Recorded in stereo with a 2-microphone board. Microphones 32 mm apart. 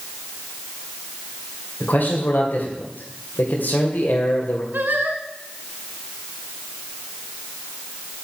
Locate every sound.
1.8 s a man speaking: 70° left (ahead or behind), 2.5 m
4.7 s singing: 80° right, 1.8 m